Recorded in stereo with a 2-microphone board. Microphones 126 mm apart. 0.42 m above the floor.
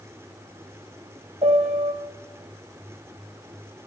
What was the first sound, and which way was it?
A piano, 65° right (ahead or behind).